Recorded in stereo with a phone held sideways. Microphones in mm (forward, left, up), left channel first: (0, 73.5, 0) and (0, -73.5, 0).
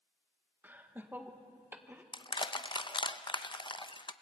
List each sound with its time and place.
0.6 s laughter: 15° right (ahead or behind), 1.8 m
2.1 s crushing: 35° left (ahead or behind), 0.6 m